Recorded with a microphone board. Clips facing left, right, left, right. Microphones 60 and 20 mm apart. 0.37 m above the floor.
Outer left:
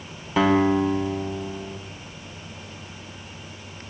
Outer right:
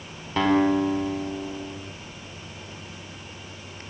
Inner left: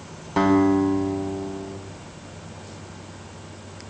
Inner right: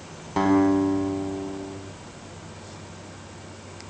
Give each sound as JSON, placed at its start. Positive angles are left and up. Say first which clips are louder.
{"t": 0.4, "sound": "a guitar", "louder": "outer left 1 dB, inner left 2 dB", "side_deg": 5, "distance_m": 3.5}